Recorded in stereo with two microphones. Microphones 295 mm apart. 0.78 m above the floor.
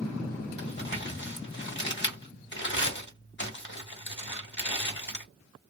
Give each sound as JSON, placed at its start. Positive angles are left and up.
{"t": 0.6, "sound": "crumpling", "side_deg": 40, "distance_m": 1.2}